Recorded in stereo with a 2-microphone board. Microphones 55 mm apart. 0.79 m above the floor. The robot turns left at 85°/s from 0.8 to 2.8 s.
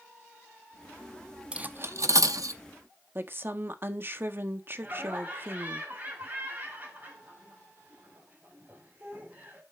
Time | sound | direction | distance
1.5 | cutlery clinking | 20° right (ahead or behind) | 0.6 m
3.1 | a woman speaking | 40° right (ahead or behind) | 1.3 m
4.8 | laughter | 30° right (ahead or behind) | 5.5 m